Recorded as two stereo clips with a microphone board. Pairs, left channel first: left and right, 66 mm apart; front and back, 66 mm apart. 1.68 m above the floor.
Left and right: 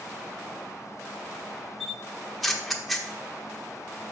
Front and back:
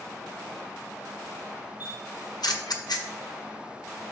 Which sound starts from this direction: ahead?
A camera shutter, at 1.8 s.